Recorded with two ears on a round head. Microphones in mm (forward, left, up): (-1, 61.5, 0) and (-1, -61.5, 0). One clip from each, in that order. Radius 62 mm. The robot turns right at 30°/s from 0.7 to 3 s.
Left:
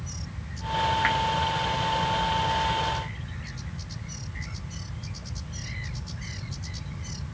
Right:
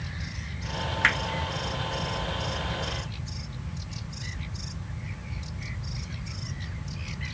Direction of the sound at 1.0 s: 90° right.